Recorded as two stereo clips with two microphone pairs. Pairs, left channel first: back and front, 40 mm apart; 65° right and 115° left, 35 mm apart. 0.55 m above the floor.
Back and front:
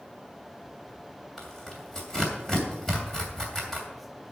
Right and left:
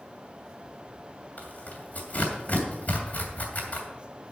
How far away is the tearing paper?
About 2.5 m.